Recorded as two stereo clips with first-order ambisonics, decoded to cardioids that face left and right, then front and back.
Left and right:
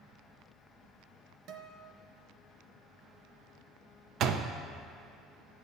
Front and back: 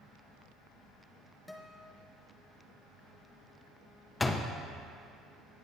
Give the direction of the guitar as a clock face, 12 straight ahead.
3 o'clock.